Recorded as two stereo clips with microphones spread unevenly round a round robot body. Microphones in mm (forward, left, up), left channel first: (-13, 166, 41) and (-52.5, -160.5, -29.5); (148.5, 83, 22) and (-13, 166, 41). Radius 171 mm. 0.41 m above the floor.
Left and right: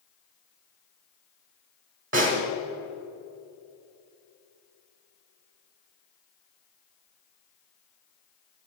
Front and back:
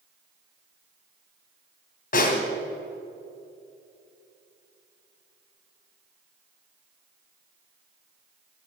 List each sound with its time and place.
2.1 s a snare drum: 45° right, 1.7 m